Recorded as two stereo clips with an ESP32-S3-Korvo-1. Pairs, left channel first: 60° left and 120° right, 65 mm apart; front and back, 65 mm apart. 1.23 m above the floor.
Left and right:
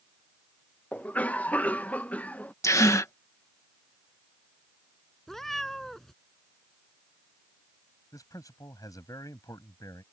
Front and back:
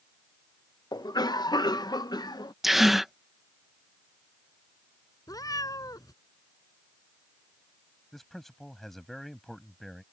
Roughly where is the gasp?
Left.